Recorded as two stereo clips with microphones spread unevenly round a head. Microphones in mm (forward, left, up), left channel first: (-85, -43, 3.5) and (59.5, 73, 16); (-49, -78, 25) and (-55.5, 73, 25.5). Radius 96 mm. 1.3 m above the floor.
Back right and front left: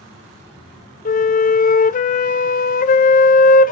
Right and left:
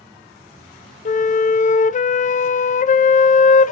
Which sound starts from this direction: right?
A flute, at 1.1 s.